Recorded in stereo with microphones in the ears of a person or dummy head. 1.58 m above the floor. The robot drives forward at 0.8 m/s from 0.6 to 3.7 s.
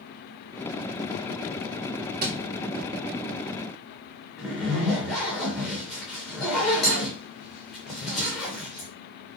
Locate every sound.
2.2 s a thud: 55° right (ahead or behind), 3 m; by 2.4 s 60° right (ahead or behind), 2.5 m
4.4 s a zipper: centre (ahead or behind), 2 m